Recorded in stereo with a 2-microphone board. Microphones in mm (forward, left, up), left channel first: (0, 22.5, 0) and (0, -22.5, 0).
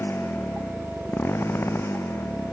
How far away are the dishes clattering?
No dishes clattering in this recording.